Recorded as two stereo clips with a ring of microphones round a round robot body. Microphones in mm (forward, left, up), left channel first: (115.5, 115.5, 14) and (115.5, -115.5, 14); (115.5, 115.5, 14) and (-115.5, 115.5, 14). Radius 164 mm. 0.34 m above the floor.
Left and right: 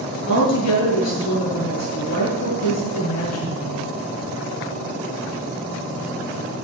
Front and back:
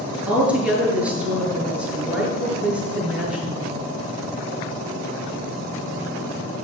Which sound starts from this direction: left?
A woman speaking, at 0.3 s.